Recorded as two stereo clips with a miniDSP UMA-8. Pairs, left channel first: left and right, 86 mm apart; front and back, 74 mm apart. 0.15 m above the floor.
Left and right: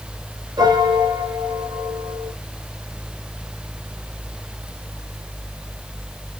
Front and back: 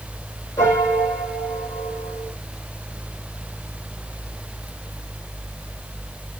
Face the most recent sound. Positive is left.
turn(degrees=-55)